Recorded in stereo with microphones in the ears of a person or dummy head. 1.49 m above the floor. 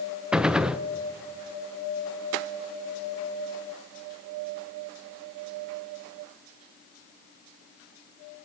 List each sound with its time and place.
0.3 s a gunshot: centre (ahead or behind), 0.6 m